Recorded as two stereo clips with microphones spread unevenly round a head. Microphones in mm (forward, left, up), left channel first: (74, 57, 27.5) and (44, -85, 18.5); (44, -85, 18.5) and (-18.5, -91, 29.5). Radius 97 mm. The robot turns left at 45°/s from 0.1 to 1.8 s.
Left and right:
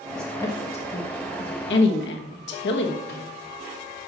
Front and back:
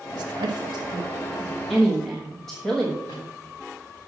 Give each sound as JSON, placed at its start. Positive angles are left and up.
{"t": 0.1, "sound": "a woman speaking", "azimuth_deg": 165, "distance_m": 1.2}
{"t": 3.1, "sound": "a microwave", "azimuth_deg": 60, "distance_m": 3.0}